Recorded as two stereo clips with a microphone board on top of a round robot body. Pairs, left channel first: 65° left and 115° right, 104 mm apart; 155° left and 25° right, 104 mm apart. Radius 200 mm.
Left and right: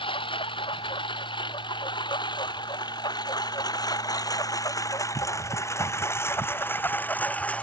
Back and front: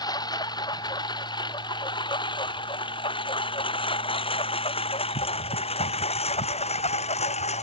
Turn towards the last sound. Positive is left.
turn(degrees=145)